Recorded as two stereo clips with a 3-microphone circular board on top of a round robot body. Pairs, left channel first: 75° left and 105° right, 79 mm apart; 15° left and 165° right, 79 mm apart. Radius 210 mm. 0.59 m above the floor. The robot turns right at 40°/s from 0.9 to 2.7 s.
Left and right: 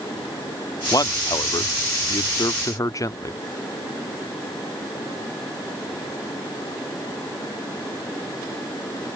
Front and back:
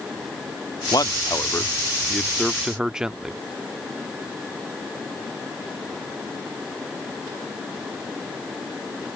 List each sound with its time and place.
0.9 s a man speaking: 40° left; by 3.4 s 115° left